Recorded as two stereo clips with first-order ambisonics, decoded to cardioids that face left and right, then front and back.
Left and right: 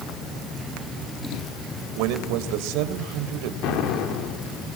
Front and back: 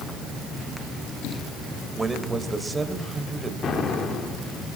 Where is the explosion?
60° left, 3 m.